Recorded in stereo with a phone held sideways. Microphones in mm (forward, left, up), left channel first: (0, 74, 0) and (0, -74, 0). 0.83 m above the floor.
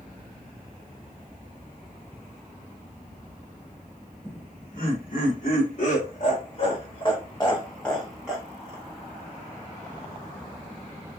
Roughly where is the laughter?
Left.